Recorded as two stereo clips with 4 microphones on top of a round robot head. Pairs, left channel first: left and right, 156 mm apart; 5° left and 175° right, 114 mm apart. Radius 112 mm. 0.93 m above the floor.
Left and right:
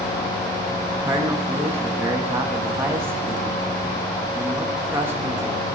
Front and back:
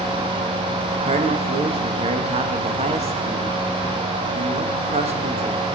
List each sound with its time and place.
1.0 s a man speaking: 165° right, 1.6 m